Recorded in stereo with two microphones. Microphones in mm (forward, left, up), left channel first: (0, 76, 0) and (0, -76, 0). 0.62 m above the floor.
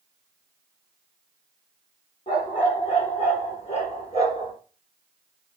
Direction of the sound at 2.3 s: 40° left (ahead or behind).